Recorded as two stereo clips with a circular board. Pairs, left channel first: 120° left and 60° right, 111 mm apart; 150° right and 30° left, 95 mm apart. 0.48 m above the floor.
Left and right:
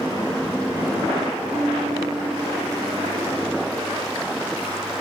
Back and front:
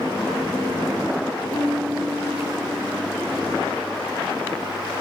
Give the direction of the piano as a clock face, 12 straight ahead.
3 o'clock.